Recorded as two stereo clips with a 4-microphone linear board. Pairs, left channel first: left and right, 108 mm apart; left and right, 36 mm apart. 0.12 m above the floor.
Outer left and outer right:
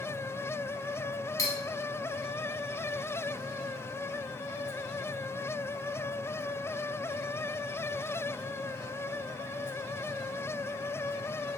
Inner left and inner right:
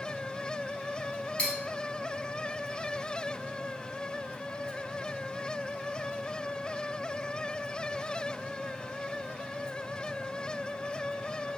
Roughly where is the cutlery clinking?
Left.